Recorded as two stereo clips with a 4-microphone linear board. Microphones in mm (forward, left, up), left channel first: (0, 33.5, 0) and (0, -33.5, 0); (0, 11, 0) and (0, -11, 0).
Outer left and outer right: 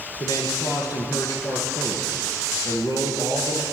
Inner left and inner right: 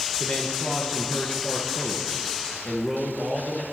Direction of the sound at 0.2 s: 65° left (ahead or behind).